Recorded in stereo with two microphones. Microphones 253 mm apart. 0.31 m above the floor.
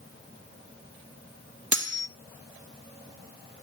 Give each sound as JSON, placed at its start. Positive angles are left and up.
{"t": 1.7, "sound": "cutlery clinking", "side_deg": -50, "distance_m": 1.0}